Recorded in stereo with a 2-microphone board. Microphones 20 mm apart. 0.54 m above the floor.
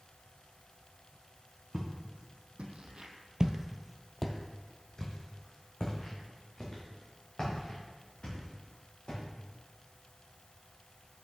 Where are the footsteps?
70° right (ahead or behind), 2 m; by 9.2 s 55° left (ahead or behind), 6 m.